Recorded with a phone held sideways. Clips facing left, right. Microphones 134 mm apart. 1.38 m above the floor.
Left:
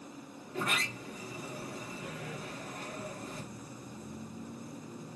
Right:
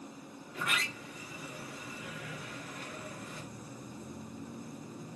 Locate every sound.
0.5 s a sliding door: 35° left (ahead or behind), 1.4 m